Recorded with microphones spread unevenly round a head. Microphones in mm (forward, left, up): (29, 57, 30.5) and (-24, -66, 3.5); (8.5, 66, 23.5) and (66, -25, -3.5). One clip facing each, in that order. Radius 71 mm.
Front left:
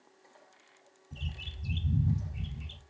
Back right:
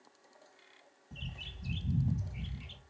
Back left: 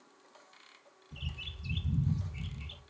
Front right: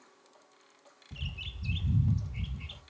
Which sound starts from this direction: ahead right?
A bird, at 1.1 s.